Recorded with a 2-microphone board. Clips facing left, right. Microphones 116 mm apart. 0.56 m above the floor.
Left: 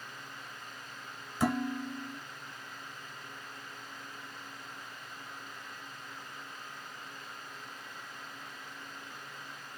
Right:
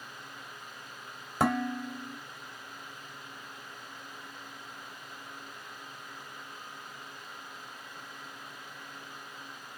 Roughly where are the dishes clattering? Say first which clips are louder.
Right 2 dB; right.